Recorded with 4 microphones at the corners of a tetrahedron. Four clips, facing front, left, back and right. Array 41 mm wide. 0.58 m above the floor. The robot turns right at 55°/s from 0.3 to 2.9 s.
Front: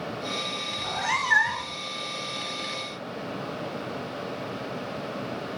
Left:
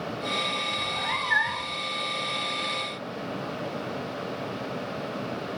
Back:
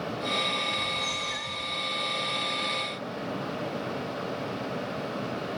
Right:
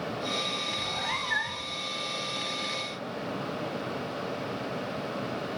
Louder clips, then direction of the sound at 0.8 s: Left 3 dB, front 3 dB; 15° right.